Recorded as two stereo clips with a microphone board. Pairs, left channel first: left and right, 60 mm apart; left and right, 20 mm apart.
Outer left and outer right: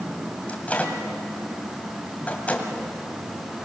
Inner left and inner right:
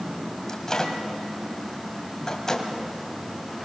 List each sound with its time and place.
0.5 s a microwave: 25° left (ahead or behind), 2 m